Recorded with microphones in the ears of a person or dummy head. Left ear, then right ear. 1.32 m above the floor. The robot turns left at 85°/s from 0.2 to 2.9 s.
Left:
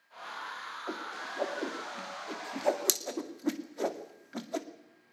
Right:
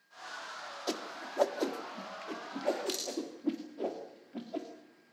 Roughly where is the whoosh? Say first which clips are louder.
Right 2 dB; right.